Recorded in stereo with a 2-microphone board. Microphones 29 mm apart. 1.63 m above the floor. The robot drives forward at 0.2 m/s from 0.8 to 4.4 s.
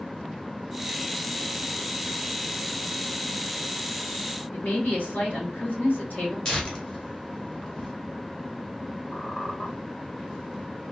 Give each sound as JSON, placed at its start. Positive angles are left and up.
{"t": 4.5, "sound": "a woman speaking", "side_deg": 55, "distance_m": 2.0}
{"t": 6.5, "sound": "tearing paper", "side_deg": 25, "distance_m": 1.3}
{"t": 9.1, "sound": "a squeak", "side_deg": 35, "distance_m": 2.5}